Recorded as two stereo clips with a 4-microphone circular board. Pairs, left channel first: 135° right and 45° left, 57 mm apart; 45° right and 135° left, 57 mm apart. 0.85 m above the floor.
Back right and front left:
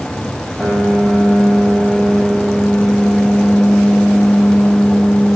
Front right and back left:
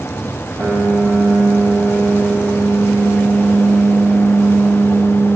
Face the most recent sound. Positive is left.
turn(degrees=150)